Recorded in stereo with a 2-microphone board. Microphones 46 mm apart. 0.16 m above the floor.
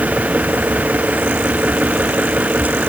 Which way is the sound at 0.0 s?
35° right (ahead or behind).